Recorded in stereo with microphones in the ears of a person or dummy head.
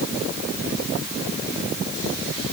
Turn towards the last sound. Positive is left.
No sound to turn to.